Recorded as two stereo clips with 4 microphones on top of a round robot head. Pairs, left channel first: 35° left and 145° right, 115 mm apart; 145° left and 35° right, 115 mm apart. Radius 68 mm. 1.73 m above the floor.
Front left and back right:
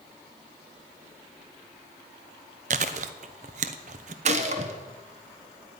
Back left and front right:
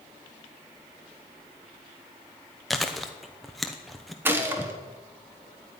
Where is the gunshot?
110° right, 1.2 m.